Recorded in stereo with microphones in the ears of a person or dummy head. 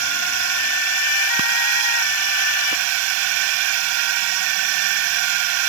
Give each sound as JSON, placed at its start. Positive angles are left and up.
{"t": 0.0, "sound": "a drone", "side_deg": -70}